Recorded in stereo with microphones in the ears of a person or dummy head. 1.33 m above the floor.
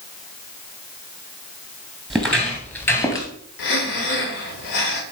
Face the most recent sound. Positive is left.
turn(degrees=55)  # may be behind; listen again after turning